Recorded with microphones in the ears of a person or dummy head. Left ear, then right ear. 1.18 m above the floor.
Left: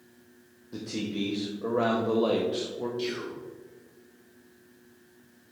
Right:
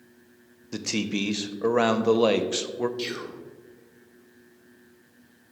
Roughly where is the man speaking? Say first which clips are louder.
Right 5 dB; right.